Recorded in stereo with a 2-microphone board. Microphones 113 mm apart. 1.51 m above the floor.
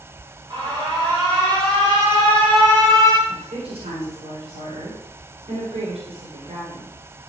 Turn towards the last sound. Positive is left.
turn(degrees=-65)  # may be behind; listen again after turning